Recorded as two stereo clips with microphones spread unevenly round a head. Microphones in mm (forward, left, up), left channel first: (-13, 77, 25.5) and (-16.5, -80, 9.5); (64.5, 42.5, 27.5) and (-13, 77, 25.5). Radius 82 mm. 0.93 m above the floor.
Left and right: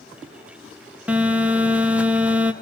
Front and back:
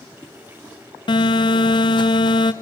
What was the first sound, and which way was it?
A phone buzzing, 15° right.